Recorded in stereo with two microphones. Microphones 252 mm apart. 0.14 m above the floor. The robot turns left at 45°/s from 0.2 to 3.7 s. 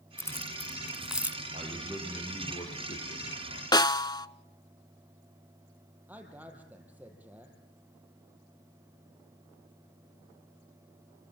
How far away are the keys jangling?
About 1.1 m.